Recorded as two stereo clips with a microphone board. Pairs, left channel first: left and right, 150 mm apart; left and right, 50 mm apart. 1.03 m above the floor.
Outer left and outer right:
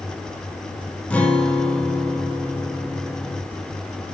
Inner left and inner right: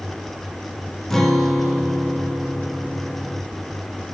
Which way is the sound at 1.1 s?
10° left (ahead or behind).